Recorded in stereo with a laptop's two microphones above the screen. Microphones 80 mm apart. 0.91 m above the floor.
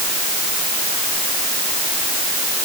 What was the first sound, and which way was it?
Only background noise.